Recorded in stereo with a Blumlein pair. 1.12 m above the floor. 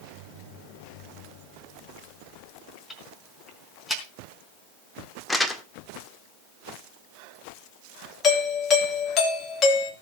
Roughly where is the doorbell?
Ahead left.